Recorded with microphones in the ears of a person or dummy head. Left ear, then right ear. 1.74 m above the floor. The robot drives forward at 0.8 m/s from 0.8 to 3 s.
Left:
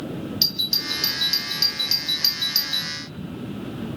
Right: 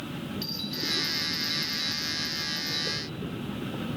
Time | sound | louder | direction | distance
0.4 | a doorbell | left 11 dB | 50° left (ahead or behind) | 3 m